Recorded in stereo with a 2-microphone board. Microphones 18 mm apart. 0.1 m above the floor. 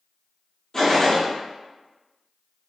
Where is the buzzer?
I don't hear a buzzer.